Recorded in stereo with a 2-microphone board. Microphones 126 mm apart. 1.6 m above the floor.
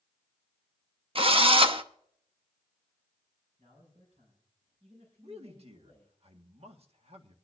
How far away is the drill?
About 0.7 m.